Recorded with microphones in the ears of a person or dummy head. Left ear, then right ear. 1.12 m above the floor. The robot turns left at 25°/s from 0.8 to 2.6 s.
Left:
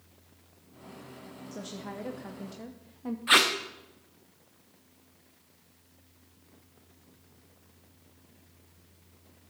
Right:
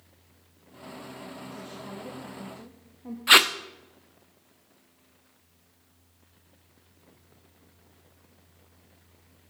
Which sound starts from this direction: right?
Tape being pulled, at 3.3 s.